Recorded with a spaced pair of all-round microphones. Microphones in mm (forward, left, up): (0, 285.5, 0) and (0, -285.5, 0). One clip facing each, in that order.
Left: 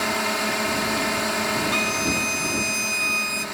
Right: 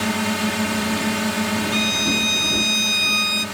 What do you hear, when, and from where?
0.0 s a drone: 55° right (ahead or behind)
1.7 s a violin: 70° left (ahead or behind)